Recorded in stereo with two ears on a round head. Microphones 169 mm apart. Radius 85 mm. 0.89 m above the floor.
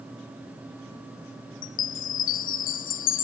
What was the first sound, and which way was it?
A chime, 45° left (ahead or behind).